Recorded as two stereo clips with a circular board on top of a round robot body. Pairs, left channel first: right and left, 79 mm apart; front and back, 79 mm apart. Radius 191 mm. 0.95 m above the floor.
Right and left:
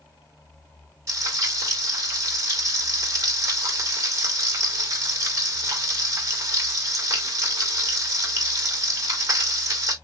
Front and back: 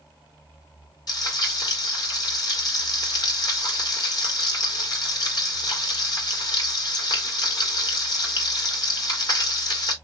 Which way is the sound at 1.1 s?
35° left.